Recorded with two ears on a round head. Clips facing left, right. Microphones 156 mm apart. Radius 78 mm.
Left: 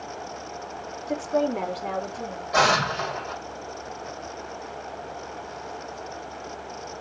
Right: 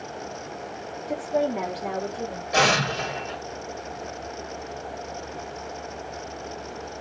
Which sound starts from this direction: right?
An explosion, at 2.5 s.